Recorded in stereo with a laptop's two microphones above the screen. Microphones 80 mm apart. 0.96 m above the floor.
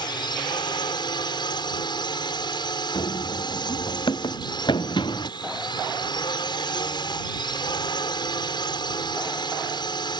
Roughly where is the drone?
Left.